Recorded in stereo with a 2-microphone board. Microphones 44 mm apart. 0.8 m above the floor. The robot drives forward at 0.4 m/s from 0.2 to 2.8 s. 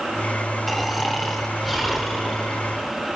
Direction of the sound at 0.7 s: Centre (ahead or behind).